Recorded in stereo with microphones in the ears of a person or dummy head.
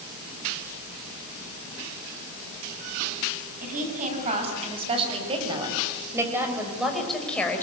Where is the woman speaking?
40° right (ahead or behind), 7.5 m; by 7.6 s 10° left (ahead or behind), 5 m.